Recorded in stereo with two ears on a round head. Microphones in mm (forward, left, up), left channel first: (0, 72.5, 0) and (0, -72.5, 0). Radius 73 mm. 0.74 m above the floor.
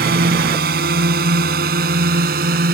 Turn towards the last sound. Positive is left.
turn(degrees=-60)  # may be behind; listen again after turning